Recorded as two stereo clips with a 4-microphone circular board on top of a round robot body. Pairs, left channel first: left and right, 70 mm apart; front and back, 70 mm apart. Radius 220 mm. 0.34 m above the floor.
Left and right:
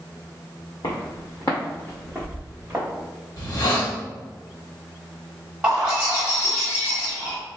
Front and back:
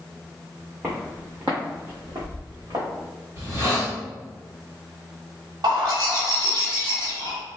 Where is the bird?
165° right, 1.3 m.